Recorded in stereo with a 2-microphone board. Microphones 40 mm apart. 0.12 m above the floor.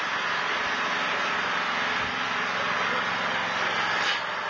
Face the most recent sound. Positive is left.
turn(degrees=0)  # may be behind; listen again after turning